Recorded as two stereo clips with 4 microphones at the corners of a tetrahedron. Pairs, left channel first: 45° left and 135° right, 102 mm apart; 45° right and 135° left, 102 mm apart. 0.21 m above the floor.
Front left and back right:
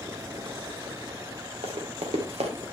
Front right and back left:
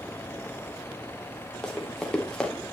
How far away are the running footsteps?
About 2.5 m.